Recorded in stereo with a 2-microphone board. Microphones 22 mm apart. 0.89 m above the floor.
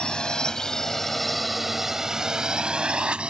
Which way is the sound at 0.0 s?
45° left (ahead or behind).